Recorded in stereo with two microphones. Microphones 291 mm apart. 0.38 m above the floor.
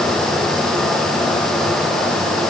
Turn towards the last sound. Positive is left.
No sound to turn to.